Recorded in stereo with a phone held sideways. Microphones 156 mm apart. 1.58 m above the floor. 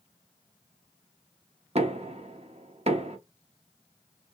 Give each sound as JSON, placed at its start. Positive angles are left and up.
{"t": 1.8, "sound": "knocking", "side_deg": -40, "distance_m": 0.9}